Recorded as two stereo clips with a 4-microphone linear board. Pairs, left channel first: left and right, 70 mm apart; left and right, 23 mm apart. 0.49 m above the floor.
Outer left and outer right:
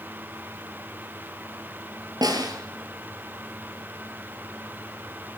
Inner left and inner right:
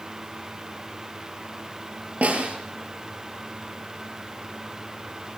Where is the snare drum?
70° right (ahead or behind), 7.5 m.